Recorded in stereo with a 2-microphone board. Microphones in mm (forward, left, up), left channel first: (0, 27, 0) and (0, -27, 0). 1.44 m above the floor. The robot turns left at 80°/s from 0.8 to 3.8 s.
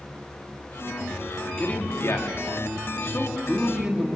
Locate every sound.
1.4 s a man speaking: 175° left, 3 m; by 4.2 s 15° right, 3 m